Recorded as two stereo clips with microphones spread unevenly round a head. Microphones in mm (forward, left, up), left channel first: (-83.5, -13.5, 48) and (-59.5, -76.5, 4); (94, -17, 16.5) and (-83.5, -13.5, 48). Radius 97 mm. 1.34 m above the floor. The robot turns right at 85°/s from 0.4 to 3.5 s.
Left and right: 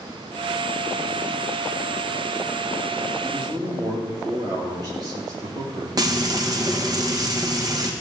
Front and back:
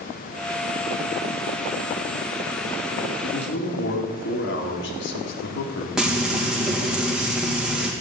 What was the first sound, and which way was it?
A man speaking, 50° right.